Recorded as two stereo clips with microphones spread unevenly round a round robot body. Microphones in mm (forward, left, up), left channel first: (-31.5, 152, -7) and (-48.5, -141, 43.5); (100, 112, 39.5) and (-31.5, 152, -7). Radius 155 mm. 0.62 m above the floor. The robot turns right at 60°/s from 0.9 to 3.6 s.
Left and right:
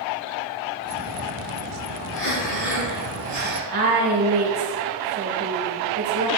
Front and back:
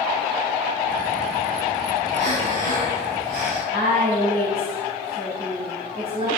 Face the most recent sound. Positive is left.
turn(degrees=-140)